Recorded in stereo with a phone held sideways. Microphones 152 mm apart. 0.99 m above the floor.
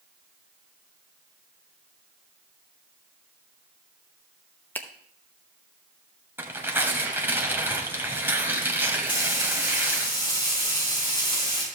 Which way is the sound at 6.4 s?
15° right (ahead or behind).